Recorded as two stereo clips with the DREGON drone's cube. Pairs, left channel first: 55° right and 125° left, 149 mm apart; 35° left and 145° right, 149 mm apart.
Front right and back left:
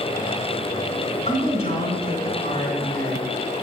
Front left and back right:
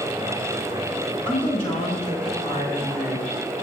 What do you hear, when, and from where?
1.2 s a woman speaking: 20° right, 4.5 m